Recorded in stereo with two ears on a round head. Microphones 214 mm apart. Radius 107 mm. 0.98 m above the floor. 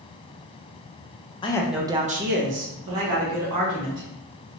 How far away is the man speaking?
About 0.5 m.